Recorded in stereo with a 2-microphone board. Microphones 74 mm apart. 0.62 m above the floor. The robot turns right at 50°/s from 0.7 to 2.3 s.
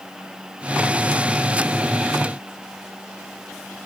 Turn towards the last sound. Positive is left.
No sound to turn to.